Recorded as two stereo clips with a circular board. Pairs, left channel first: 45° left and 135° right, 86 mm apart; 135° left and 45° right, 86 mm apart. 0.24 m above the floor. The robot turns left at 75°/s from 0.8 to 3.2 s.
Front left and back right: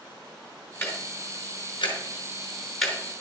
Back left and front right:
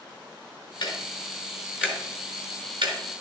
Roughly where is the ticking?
Left.